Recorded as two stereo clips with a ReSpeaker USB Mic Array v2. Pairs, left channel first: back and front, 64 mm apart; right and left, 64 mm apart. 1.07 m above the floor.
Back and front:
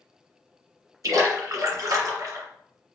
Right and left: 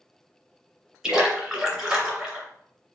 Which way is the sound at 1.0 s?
15° left.